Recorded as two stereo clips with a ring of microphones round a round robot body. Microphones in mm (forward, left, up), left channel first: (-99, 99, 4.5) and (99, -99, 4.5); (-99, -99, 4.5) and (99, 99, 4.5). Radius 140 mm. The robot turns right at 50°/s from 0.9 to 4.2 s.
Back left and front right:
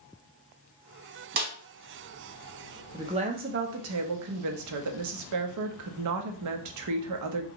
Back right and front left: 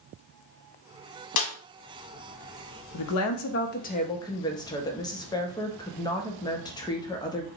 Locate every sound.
1.4 s a snare drum: 105° right, 0.9 m; by 1.5 s 95° right, 0.9 m
2.9 s a woman speaking: 125° right, 0.6 m; by 7.5 s 60° right, 0.6 m